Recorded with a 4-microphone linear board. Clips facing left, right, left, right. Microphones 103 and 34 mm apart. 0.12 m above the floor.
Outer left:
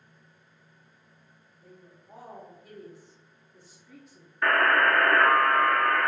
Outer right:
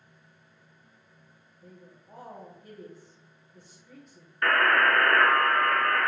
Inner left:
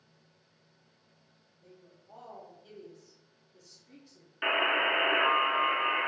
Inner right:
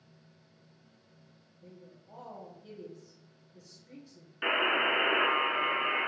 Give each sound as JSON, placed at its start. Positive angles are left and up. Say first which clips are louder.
{"t": 1.6, "sound": "a woman speaking", "louder": "outer right 1 dB, inner right 4 dB", "side_deg": 0, "distance_m": 1.2}
{"t": 4.4, "sound": "a buzzer", "louder": "outer left 1 dB, inner left 1 dB", "side_deg": 5, "distance_m": 0.5}